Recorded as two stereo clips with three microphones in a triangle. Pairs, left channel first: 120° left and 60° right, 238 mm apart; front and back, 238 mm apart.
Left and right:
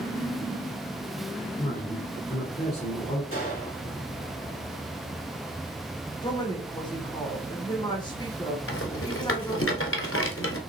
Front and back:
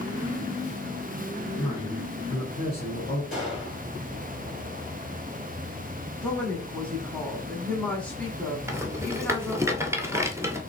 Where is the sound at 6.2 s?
75° left, 1.1 m.